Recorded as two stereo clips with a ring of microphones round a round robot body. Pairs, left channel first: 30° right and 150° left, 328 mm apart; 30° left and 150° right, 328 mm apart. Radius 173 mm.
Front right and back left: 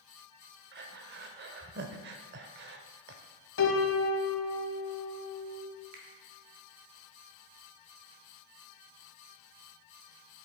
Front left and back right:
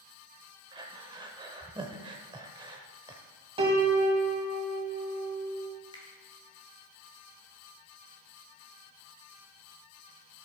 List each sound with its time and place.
0.7 s breathing: 150° left, 0.6 m
3.6 s a piano: 80° right, 1.0 m
5.9 s a finger snap: 105° left, 1.8 m